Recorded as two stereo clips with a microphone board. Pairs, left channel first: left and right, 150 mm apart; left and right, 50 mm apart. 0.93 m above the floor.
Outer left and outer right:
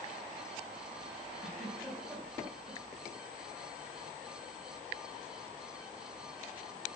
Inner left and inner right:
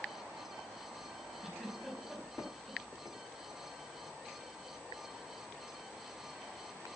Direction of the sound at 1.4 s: 5° right (ahead or behind).